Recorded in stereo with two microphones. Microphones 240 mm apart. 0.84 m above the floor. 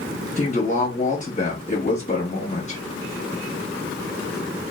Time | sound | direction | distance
0.4 | a woman speaking | 30° left (ahead or behind) | 1.3 m